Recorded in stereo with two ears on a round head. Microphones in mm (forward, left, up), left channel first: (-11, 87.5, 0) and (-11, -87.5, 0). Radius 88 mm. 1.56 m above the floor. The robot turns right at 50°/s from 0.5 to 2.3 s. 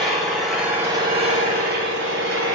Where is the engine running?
Straight behind, 3 m; by 2.5 s 90° right, 3 m.